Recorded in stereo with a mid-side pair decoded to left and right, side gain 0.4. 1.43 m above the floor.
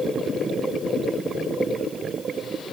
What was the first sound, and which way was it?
Only background noise.